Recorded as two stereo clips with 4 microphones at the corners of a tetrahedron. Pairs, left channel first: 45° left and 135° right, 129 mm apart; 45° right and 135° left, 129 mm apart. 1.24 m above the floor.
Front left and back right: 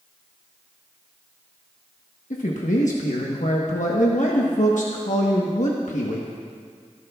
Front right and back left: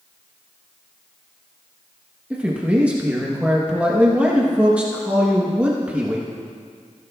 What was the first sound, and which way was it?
A man speaking, 55° left.